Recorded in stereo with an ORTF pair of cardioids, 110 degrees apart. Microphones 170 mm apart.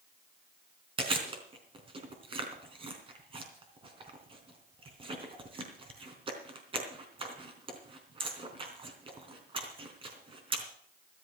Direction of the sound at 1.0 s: 30° right.